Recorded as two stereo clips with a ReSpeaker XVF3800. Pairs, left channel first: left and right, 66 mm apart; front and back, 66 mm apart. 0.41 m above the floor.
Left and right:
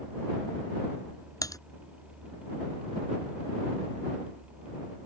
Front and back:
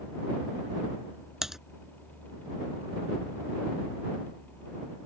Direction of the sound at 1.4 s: 100° left.